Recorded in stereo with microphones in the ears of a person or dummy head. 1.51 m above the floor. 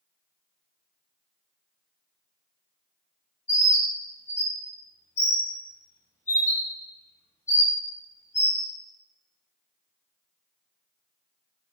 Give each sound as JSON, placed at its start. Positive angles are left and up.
{"t": 3.5, "sound": "a bird", "side_deg": 15, "distance_m": 0.6}